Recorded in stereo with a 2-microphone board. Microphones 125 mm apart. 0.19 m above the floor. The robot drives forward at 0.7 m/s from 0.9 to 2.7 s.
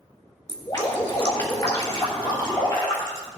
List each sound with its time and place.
0.5 s dripping: 40° left (ahead or behind), 2.5 m; by 3.3 s 25° left (ahead or behind), 3.5 m